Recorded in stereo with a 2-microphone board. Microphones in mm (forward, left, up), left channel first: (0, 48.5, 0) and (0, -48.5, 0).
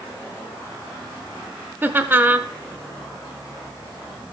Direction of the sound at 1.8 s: 20° right (ahead or behind).